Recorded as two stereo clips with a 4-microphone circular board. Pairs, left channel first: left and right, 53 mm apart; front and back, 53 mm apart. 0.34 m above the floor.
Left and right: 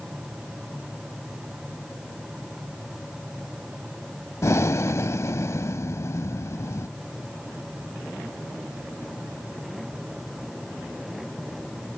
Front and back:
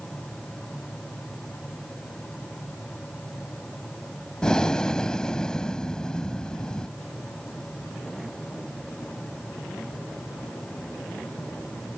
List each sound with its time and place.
4.4 s breathing: 75° left